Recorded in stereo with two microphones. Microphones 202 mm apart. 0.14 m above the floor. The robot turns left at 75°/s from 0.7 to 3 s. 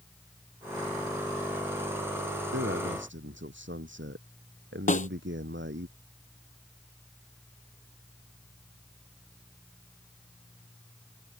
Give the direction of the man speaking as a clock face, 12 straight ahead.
2 o'clock.